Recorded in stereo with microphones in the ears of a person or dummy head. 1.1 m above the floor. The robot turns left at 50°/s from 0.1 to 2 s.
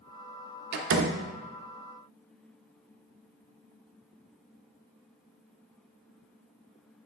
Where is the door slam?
55° right (ahead or behind), 0.8 m; by 1.2 s 80° right, 0.8 m.